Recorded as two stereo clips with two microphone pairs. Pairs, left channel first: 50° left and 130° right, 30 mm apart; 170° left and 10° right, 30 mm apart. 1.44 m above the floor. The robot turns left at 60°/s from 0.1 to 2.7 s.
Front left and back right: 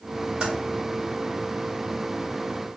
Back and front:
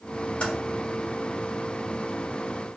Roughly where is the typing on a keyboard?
Behind.